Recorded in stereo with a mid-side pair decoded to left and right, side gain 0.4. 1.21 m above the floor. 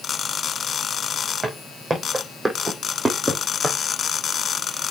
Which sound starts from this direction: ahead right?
Footsteps, at 1.4 s.